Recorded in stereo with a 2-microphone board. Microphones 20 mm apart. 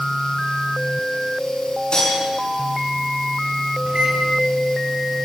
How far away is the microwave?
About 5 m.